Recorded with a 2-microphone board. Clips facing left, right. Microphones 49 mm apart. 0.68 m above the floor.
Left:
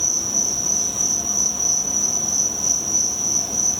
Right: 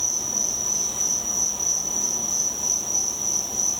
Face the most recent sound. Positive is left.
turn(degrees=65)  # may be behind; listen again after turning